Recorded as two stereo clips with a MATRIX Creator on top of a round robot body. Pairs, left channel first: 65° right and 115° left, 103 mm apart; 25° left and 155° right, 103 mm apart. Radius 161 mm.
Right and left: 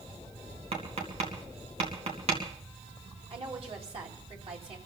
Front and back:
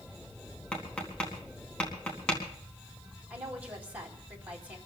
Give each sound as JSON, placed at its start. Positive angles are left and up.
{"t": 0.7, "sound": "tapping", "azimuth_deg": 100, "distance_m": 4.0}
{"t": 3.3, "sound": "a woman speaking", "azimuth_deg": 125, "distance_m": 4.0}